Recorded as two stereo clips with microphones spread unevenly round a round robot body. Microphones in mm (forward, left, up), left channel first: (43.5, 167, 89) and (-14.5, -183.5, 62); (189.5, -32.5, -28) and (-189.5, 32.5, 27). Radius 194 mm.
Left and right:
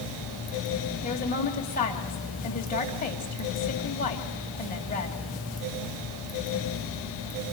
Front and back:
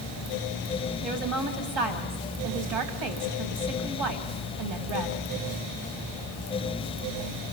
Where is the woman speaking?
150° left, 3 m.